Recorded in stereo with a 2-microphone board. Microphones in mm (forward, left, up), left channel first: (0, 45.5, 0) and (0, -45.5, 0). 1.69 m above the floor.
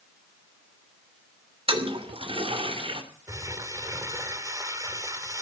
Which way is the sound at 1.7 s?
70° right (ahead or behind).